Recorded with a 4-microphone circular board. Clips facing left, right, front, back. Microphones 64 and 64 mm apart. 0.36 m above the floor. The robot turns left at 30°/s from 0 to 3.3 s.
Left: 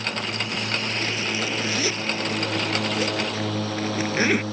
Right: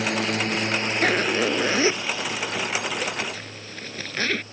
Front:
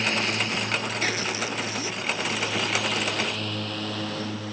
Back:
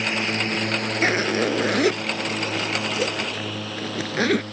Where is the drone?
105° right; by 4.5 s 85° left.